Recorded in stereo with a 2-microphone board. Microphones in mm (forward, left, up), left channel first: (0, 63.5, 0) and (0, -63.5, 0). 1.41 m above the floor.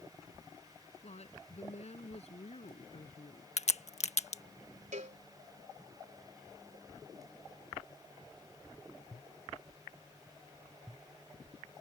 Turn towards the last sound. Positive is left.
turn(degrees=-75)  # may be behind; listen again after turning